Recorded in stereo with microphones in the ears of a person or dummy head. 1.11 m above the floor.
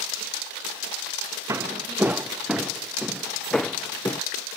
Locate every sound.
1.5 s footsteps: 15° right (ahead or behind); by 4.2 s 10° left (ahead or behind)